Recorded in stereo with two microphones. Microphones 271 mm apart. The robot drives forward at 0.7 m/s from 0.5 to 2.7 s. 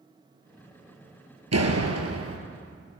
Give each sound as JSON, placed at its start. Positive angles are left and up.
{"t": 1.5, "sound": "a door slam", "side_deg": -65, "distance_m": 2.5}